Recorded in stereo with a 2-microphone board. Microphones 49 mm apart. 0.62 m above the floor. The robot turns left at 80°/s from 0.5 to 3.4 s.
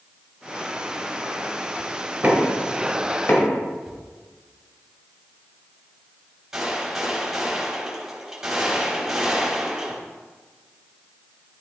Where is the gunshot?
10° right (ahead or behind), 3.5 m.